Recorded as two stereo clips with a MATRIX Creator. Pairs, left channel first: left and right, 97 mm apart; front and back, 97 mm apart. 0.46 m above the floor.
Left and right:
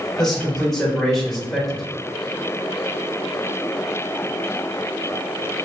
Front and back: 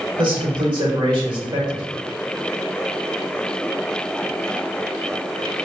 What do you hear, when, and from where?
0.2 s a man speaking: 175° left, 1.2 m